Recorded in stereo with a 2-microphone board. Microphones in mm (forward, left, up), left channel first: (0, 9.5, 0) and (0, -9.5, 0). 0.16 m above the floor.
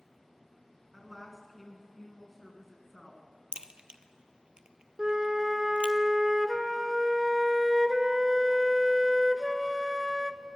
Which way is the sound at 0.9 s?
Centre (ahead or behind).